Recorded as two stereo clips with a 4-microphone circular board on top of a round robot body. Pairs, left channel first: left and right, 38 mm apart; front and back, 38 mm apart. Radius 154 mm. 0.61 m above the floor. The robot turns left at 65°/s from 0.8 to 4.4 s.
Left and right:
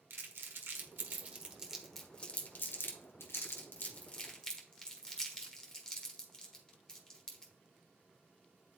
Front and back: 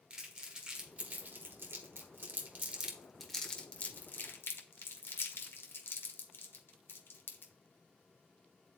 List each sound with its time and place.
0.1 s crumpling: 110° right, 1.3 m; by 7.5 s 15° left, 1.3 m